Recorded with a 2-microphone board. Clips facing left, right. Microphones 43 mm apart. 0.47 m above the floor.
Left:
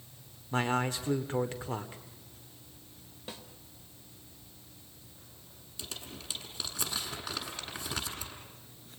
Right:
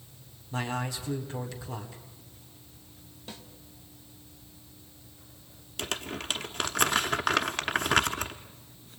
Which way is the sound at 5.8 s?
65° right (ahead or behind).